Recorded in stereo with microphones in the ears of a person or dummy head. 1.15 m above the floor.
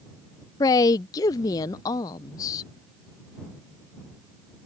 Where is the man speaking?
20° left (ahead or behind).